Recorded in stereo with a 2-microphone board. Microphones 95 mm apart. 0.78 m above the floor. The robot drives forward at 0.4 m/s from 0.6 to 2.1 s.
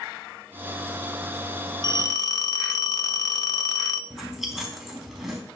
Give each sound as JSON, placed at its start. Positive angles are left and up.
{"t": 1.8, "sound": "a phone ringing", "side_deg": 45, "distance_m": 0.6}
{"t": 4.1, "sound": "chewing", "side_deg": 0, "distance_m": 4.0}